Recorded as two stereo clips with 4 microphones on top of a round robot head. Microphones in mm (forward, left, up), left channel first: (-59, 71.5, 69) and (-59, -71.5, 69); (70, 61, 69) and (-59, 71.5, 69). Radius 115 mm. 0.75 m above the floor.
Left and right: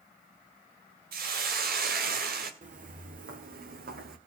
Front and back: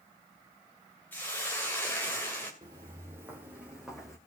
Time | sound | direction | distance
1.1 | a hiss | 85° right | 2.5 m
2.6 | footsteps | 115° right | 2.5 m